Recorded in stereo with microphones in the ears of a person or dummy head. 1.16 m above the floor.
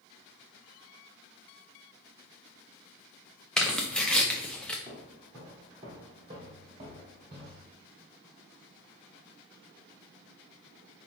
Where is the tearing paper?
Centre (ahead or behind), 0.6 m.